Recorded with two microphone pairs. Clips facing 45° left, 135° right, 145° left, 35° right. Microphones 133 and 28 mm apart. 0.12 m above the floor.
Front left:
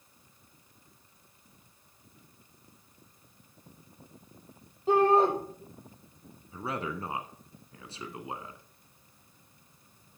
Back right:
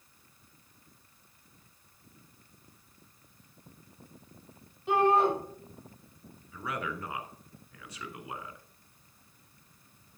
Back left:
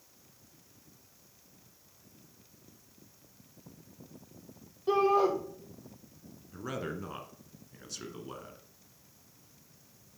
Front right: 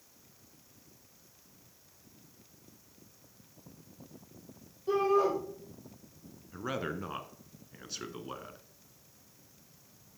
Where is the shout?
95° left, 4 m.